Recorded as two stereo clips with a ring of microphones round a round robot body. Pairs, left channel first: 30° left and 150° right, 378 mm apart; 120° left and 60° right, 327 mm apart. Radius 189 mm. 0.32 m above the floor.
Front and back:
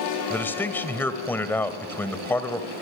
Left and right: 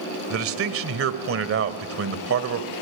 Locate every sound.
0.3 s a man speaking: 50° right, 1.8 m